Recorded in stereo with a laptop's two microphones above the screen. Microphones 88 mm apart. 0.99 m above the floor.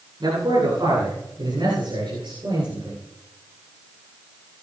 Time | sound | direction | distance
0.2 | a man speaking | 65° right (ahead or behind) | 9.5 m